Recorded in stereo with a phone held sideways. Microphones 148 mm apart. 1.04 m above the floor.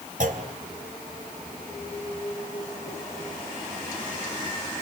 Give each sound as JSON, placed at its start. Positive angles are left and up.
{"t": 0.2, "sound": "a clunk", "side_deg": -60, "distance_m": 2.5}